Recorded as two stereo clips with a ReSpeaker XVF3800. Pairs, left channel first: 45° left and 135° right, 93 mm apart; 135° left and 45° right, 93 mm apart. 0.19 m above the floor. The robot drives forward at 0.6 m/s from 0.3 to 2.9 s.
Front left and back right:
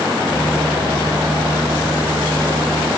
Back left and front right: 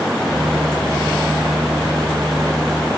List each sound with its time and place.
Only background noise.